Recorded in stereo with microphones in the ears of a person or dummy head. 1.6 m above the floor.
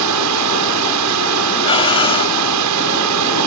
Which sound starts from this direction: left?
Breathing, at 1.6 s.